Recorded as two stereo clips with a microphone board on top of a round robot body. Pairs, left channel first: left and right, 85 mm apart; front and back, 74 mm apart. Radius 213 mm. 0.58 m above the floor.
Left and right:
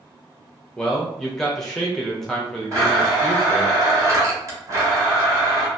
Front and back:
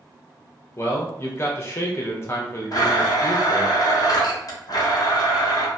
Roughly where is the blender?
Ahead right.